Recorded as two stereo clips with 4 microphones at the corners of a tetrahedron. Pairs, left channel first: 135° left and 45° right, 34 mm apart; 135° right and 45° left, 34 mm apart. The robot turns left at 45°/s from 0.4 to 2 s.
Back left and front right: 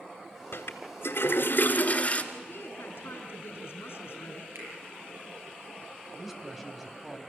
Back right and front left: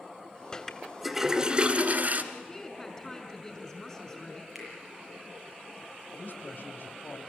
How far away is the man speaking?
About 2.5 m.